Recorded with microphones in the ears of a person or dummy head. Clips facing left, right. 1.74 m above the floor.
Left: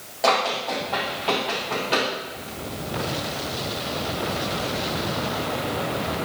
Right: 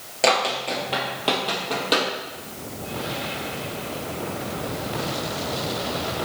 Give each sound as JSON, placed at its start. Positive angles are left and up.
{"t": 0.2, "sound": "running footsteps", "side_deg": -40, "distance_m": 2.5}